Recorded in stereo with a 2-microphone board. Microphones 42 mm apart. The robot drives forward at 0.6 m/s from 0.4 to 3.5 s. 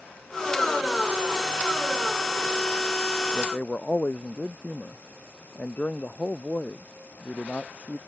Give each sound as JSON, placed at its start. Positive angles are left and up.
{"t": 3.3, "sound": "a man speaking", "side_deg": 30}